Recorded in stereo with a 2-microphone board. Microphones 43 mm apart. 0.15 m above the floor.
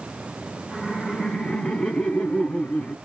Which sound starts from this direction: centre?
Laughter, at 0.7 s.